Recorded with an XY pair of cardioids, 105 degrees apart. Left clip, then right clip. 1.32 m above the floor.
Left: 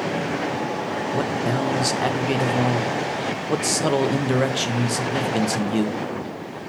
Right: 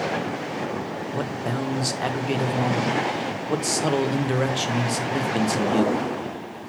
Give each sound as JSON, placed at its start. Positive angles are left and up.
{"t": 1.1, "sound": "a man speaking", "azimuth_deg": 15, "distance_m": 0.9}